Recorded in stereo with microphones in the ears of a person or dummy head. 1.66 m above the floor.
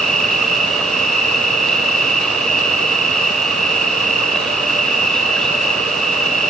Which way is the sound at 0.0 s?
5° left (ahead or behind).